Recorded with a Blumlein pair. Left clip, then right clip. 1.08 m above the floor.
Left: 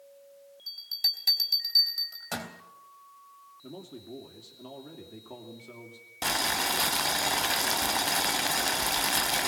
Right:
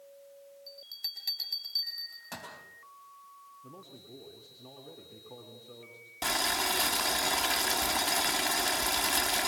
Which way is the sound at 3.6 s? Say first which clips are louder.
Left 9 dB; 55° left.